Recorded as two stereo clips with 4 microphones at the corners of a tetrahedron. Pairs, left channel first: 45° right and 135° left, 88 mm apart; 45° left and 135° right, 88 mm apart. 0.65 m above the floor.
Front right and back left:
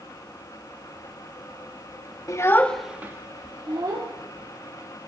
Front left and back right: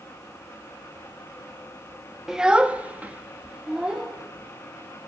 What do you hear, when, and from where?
2.3 s a child speaking: 55° right, 0.7 m; by 4.1 s 150° left, 1.4 m